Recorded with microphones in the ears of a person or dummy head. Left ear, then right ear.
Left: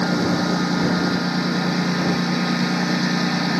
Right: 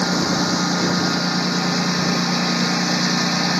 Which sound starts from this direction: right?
A lawn mower, at 0.0 s.